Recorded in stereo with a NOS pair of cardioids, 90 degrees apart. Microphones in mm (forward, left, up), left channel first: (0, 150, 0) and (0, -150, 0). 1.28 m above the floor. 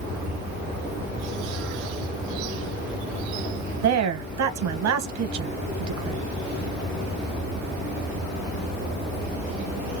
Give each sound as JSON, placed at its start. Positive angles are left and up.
{"t": 3.8, "sound": "a woman speaking", "azimuth_deg": -70, "distance_m": 1.2}